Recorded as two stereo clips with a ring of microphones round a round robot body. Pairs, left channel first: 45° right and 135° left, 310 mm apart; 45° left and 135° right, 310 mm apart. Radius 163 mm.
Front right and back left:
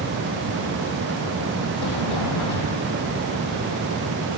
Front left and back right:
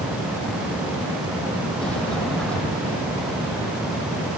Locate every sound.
1.8 s a sliding door: 40° right, 2.5 m